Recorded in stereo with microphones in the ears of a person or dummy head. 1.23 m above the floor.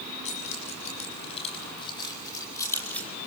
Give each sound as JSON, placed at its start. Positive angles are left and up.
{"t": 0.2, "sound": "keys jangling", "side_deg": 35, "distance_m": 7.0}